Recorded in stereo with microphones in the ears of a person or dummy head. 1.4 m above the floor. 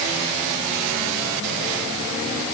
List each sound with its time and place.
Only background noise.